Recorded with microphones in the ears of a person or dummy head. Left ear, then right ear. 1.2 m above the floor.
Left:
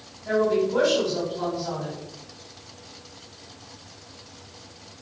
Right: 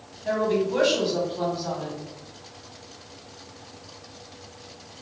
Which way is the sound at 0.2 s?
35° right (ahead or behind).